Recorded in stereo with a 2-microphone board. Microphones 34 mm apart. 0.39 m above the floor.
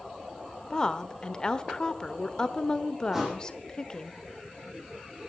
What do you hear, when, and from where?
0.7 s a woman speaking: 25° left (ahead or behind), 1.0 m
3.1 s a thud: 10° right (ahead or behind), 6.5 m